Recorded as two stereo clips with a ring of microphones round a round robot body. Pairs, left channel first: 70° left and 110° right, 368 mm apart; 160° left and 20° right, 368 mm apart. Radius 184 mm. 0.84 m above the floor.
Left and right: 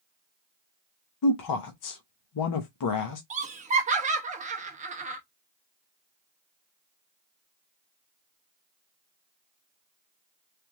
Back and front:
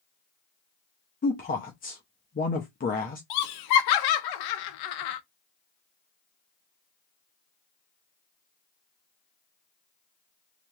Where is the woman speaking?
95° left, 0.7 m.